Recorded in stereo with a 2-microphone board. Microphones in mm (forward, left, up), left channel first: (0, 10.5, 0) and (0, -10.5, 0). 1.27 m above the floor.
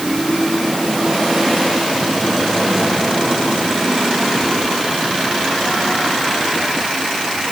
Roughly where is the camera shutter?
I don't hear a camera shutter.